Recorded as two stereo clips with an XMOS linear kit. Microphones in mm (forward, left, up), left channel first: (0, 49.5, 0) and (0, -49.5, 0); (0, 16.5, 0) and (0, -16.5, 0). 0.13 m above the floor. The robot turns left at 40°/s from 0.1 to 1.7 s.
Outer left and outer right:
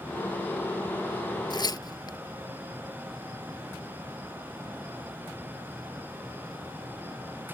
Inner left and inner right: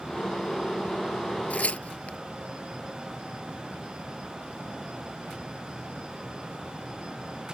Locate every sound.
1.5 s tearing paper: 55° left (ahead or behind); by 2.2 s 50° left (ahead or behind)